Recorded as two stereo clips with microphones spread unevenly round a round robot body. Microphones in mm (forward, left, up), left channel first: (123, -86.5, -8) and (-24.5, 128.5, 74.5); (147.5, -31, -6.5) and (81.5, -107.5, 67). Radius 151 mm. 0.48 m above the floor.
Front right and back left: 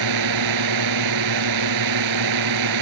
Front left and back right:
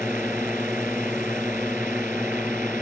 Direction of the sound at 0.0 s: 145° left.